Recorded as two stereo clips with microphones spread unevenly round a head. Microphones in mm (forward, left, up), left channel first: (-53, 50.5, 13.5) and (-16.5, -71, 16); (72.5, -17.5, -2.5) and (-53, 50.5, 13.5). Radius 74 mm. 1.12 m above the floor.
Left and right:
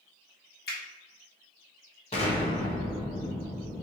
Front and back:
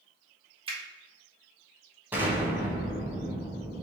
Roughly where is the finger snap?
Left.